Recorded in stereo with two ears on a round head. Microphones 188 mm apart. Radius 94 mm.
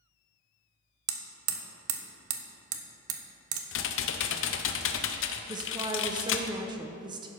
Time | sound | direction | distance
1.1 | hammering | 75° right (ahead or behind) | 0.9 m
3.7 | typing on a keyboard | 65° left (ahead or behind) | 0.7 m
5.5 | a woman speaking | 20° right (ahead or behind) | 0.6 m